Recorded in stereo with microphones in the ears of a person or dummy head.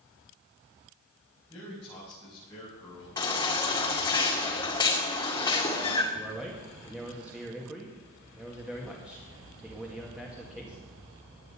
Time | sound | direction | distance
1.5 | a man speaking | 20° left (ahead or behind) | 7.5 m
3.2 | a baby crying | 25° left (ahead or behind) | 2 m
6.1 | a man speaking | centre (ahead or behind) | 1.8 m